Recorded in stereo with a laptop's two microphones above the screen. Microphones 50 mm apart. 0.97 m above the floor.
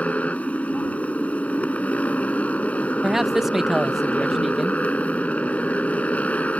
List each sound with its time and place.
0.0 s a motorcycle: 30° left (ahead or behind)
3.0 s a man speaking: 10° right (ahead or behind)